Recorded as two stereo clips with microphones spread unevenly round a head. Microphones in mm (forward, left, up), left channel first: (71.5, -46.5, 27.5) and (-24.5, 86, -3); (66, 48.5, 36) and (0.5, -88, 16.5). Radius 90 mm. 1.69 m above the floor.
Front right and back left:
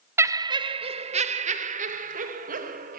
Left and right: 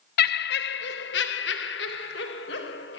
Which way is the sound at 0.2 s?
50° left.